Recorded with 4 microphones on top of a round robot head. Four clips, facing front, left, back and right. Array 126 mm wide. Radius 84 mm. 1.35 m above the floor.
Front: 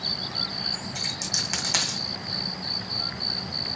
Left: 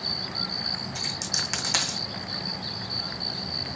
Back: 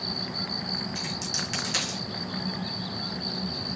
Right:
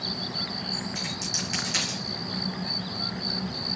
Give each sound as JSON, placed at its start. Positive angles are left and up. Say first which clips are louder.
{"t": 0.9, "sound": "a dropped coin", "louder": "right 1 dB, back 1 dB", "azimuth_deg": 50, "distance_m": 1.9}